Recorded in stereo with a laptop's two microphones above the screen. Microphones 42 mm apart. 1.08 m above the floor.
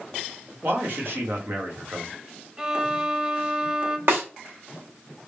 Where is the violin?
20° right (ahead or behind), 0.7 m.